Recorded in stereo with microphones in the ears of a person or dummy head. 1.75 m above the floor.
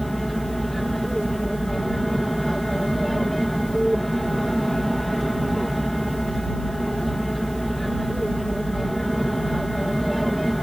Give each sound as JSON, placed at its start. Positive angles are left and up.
{"t": 0.0, "sound": "an aircraft", "side_deg": 0}